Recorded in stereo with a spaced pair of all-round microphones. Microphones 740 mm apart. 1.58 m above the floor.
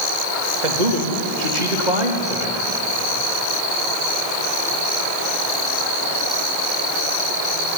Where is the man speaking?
70° right (ahead or behind), 3 m.